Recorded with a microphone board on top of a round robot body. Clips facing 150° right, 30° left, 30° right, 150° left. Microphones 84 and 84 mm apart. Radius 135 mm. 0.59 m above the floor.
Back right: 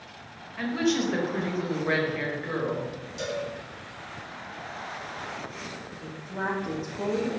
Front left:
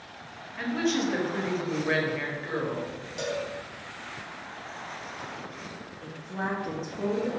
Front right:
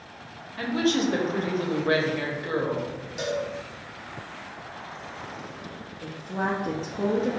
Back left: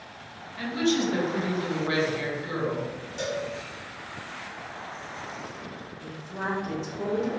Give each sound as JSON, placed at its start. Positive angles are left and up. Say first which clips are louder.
{"t": 0.6, "sound": "a woman speaking", "louder": "back right 1 dB, front right 1 dB", "azimuth_deg": -65, "distance_m": 1.1}
{"t": 3.2, "sound": "a cowbell", "louder": "even, front right 2 dB", "azimuth_deg": 45, "distance_m": 1.4}
{"t": 6.0, "sound": "a woman speaking", "louder": "back right 1 dB, front right 4 dB", "azimuth_deg": -60, "distance_m": 0.8}